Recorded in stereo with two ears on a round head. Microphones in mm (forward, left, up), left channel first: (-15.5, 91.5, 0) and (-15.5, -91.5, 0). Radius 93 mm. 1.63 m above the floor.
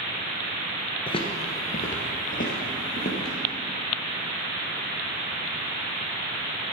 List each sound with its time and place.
1.1 s footsteps: 25° left (ahead or behind), 1.7 m; by 3.4 s 45° left (ahead or behind), 3.5 m